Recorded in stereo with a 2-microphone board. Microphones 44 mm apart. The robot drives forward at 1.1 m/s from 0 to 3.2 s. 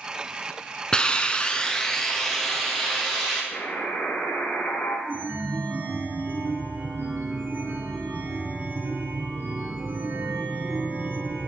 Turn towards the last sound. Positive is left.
turn(degrees=-60)  # may be behind; listen again after turning